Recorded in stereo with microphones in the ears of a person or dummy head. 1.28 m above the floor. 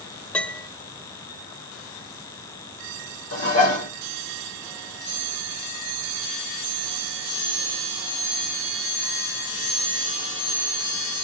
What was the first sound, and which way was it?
A piano, 10° left (ahead or behind).